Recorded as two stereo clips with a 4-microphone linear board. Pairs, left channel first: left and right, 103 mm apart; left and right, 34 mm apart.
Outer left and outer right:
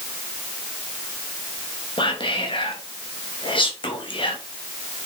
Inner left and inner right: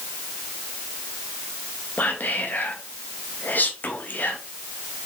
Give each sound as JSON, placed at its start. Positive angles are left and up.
{"t": 2.0, "sound": "whispering", "side_deg": 55, "distance_m": 1.9}